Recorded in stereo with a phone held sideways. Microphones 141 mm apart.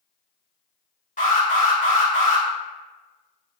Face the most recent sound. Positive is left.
turn(degrees=65)  # may be behind; listen again after turning